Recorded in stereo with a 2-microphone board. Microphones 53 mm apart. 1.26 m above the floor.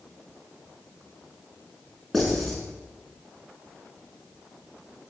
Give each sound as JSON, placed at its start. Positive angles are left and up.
{"t": 2.1, "sound": "writing", "side_deg": 0, "distance_m": 6.5}